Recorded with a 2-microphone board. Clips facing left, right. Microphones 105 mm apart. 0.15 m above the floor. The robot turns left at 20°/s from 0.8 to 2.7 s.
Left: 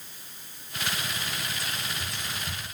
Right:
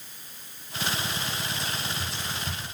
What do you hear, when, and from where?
1.6 s whispering: 25° right (ahead or behind), 1.7 m; by 2.6 s 30° right (ahead or behind), 1.7 m